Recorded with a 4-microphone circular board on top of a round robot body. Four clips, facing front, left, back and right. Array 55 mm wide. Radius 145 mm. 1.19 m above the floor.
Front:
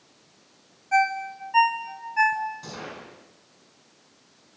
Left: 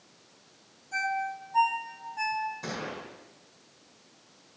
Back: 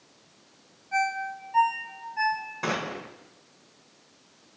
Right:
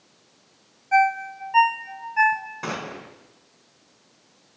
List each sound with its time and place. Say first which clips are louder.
0.9 s a ringtone: right 11 dB, front 5 dB; 65° right, 1.3 m
2.6 s a gunshot: right 5 dB, back 8 dB; 135° right, 4.5 m